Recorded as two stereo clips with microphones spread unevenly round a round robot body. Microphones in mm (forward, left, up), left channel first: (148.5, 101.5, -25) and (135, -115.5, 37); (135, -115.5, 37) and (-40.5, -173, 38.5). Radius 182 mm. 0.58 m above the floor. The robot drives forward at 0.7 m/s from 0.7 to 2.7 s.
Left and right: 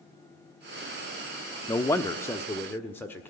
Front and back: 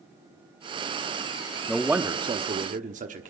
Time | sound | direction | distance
1.7 | a man speaking | 100° left | 0.8 m